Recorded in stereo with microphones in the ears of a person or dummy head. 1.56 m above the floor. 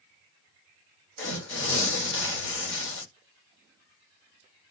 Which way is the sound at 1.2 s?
85° left.